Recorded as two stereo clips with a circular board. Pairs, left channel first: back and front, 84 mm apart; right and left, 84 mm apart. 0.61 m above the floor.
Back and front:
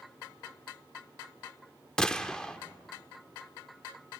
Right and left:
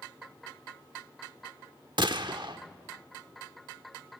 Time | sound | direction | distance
2.0 | a gunshot | 100° left | 0.9 m